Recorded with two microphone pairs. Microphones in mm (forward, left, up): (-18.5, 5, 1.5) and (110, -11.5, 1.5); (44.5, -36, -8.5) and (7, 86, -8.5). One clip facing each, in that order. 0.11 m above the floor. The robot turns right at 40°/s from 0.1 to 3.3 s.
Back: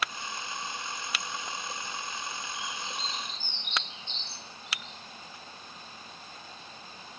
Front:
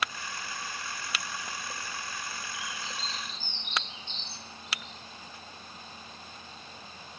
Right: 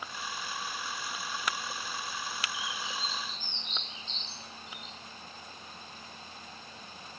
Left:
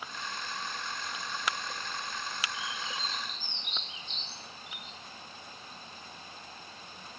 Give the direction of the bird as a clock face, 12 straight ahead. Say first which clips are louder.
Back 1 dB, even; 7 o'clock.